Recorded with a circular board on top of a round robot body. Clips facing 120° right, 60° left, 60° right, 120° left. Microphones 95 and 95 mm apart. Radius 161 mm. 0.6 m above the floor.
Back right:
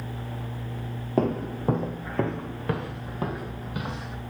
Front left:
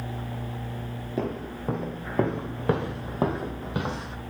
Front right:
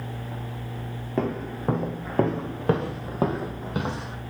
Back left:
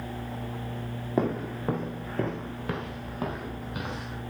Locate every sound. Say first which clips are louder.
1.2 s footsteps: back right 6 dB, even; 160° right, 0.7 m; by 4.2 s straight ahead, 1.9 m